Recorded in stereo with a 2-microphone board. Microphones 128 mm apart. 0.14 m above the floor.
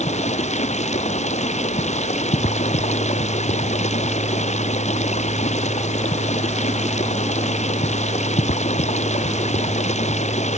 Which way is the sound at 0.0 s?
65° left (ahead or behind).